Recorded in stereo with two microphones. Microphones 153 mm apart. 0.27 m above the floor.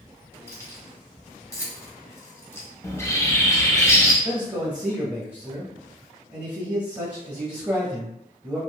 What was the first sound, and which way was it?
Keys jangling, 15° left (ahead or behind).